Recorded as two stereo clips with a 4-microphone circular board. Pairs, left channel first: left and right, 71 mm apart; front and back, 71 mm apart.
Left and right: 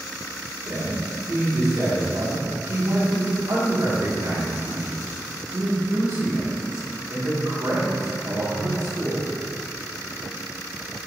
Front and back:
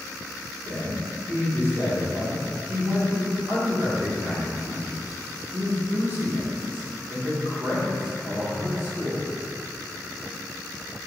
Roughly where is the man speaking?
Behind right.